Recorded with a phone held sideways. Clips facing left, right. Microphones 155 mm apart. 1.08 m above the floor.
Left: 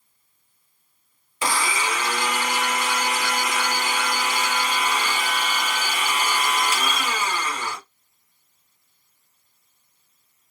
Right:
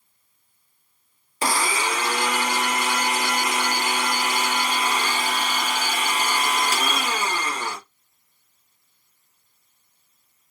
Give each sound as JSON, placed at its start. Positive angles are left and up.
{"t": 1.4, "sound": "a blender", "side_deg": -40, "distance_m": 1.0}